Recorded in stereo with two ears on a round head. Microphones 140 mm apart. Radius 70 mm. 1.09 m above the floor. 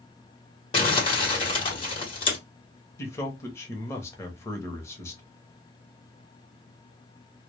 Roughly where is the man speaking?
Centre.